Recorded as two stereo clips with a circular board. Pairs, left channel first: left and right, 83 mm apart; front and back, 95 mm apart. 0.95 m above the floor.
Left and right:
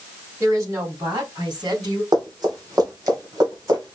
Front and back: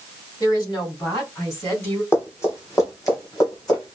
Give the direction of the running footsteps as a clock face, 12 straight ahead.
2 o'clock.